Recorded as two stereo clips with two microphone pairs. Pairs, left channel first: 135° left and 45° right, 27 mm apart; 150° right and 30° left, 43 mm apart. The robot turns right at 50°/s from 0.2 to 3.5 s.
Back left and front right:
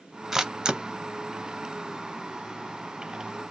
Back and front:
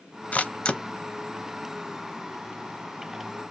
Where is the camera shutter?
115° right, 0.5 m; by 0.8 s 90° right, 0.5 m.